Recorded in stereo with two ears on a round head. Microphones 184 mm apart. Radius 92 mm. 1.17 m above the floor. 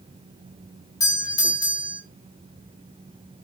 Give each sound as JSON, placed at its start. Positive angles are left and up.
{"t": 1.0, "sound": "a doorbell", "side_deg": 20, "distance_m": 1.2}